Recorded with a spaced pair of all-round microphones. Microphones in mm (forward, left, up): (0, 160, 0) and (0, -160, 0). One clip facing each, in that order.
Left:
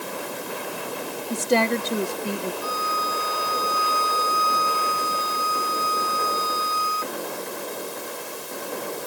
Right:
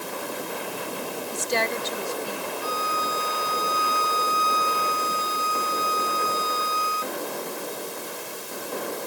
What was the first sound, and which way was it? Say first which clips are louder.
A woman speaking: left 8 dB; 65° left (ahead or behind).